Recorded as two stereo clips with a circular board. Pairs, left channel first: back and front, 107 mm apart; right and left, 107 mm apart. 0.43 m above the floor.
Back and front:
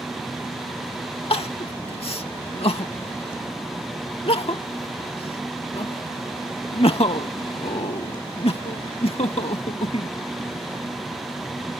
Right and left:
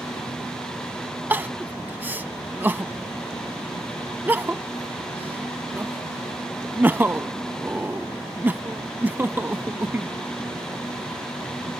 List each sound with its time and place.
1.3 s crying: 160° left